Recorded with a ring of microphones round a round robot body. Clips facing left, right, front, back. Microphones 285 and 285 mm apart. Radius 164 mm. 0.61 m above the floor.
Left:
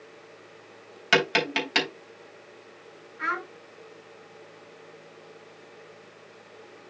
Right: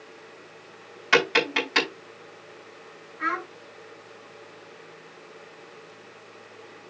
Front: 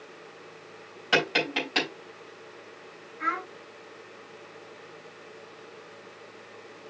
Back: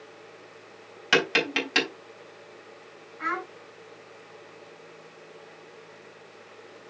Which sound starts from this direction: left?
A child speaking, at 3.2 s.